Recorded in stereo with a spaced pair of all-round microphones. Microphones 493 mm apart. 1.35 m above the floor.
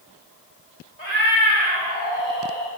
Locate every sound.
1.0 s a cat meowing: 65° right (ahead or behind), 2 m; by 2.7 s 70° right (ahead or behind), 3 m